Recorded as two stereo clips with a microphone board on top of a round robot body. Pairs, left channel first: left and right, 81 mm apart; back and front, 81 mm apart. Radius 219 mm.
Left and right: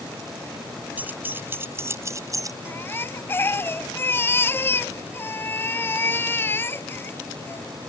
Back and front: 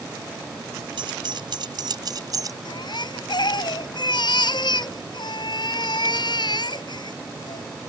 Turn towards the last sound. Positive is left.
turn(degrees=155)